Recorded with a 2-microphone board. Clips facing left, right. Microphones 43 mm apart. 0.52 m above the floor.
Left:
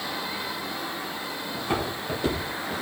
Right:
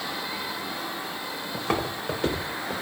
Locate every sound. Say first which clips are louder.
1.5 s footsteps: right 1 dB; 70° right (ahead or behind), 5 m; by 2.7 s 65° right (ahead or behind), 5 m